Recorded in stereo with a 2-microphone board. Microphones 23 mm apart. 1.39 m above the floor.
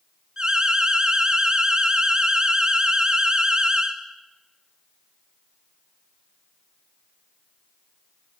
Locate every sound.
0.4 s an alarm: 35° right (ahead or behind), 1.5 m